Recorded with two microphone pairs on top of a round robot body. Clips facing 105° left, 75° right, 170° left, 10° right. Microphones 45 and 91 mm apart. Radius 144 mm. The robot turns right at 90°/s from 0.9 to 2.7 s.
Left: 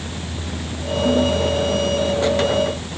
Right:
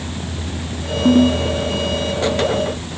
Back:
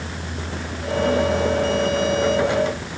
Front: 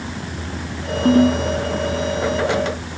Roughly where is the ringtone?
Ahead right.